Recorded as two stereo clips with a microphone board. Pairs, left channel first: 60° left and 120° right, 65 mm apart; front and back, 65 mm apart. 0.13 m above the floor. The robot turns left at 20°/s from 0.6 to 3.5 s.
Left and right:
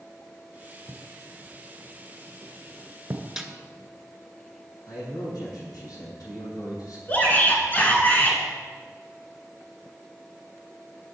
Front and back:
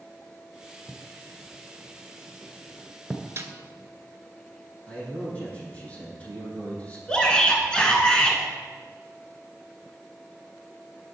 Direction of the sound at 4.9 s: 65° left.